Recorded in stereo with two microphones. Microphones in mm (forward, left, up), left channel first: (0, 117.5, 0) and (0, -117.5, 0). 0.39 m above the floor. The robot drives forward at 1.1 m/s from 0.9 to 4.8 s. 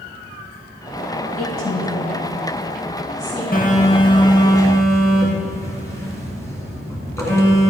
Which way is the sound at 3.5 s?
40° left (ahead or behind).